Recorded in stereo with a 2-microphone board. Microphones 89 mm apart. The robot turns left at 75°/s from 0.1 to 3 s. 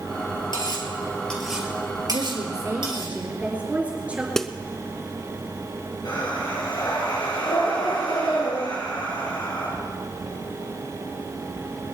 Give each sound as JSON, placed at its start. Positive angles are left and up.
{"t": 0.5, "sound": "cutlery clinking", "side_deg": 65, "distance_m": 3.0}
{"t": 2.1, "sound": "a woman speaking", "azimuth_deg": -95, "distance_m": 3.5}
{"t": 4.4, "sound": "a snare drum", "side_deg": 5, "distance_m": 0.6}
{"t": 6.0, "sound": "breathing", "side_deg": 60, "distance_m": 4.5}